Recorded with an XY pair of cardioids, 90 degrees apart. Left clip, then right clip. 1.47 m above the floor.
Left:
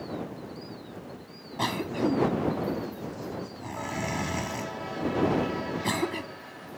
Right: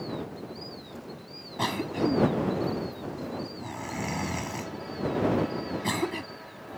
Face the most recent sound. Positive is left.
turn(degrees=5)